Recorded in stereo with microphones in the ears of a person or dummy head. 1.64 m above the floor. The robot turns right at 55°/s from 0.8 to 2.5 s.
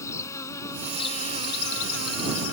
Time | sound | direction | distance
0.0 | an insect | 20° left | ?